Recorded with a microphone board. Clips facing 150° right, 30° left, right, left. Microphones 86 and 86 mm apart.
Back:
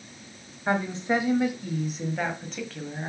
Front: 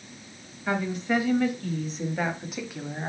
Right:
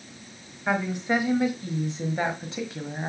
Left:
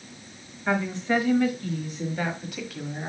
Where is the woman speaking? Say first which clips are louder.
Back 1 dB, even; 155° right, 1.3 m; by 3.1 s 35° right, 1.6 m.